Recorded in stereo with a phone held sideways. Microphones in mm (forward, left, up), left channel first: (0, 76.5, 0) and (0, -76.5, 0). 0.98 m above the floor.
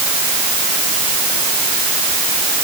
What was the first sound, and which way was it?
Only background noise.